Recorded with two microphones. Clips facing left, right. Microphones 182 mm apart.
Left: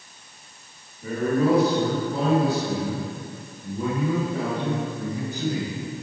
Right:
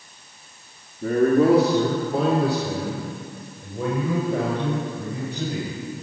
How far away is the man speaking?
About 1.9 m.